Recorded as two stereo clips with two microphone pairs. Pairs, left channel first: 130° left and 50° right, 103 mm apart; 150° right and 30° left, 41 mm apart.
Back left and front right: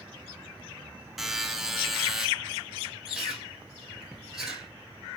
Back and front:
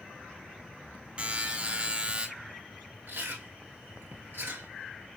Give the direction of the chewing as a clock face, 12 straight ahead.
11 o'clock.